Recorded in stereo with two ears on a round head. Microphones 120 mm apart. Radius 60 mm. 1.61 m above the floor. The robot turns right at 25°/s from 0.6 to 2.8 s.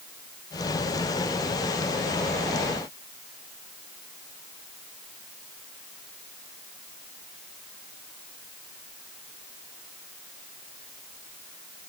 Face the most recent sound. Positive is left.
No sound to turn to.